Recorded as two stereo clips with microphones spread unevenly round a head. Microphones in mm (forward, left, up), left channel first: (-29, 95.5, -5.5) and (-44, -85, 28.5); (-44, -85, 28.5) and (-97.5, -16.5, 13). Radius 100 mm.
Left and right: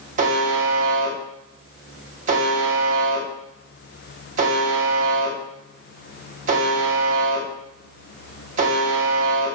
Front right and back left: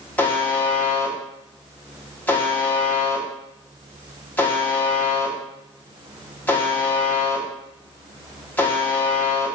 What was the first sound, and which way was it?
A buzzer, 110° right.